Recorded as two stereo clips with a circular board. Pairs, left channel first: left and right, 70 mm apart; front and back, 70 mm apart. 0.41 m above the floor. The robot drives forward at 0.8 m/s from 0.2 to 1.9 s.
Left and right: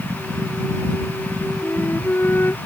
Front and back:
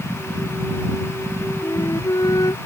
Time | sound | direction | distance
1.6 | a flute | 30° left | ?